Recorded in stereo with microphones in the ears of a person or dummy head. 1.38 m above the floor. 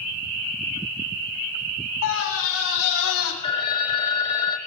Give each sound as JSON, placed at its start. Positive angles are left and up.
{"t": 2.0, "sound": "a scream", "side_deg": 80, "distance_m": 3.5}
{"t": 3.4, "sound": "a phone ringing", "side_deg": 35, "distance_m": 1.0}